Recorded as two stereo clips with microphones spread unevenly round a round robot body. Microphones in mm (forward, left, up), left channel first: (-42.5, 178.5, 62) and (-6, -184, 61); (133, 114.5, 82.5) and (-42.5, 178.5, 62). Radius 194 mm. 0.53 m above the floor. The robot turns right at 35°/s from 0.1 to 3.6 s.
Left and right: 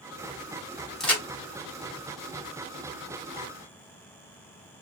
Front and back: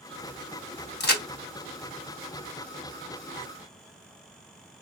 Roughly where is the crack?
Ahead.